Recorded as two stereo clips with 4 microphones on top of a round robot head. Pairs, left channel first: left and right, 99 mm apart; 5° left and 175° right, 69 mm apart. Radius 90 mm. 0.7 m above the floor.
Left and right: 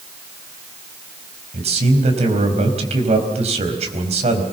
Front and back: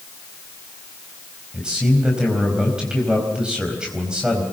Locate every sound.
1.5 s a man speaking: 100° right, 4.5 m